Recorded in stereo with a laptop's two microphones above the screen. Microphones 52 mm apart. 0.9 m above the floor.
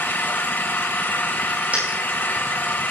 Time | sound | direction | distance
0.0 | an engine running | 40° left (ahead or behind) | 3 m
1.7 | a dropped coin | 30° right (ahead or behind) | 6.5 m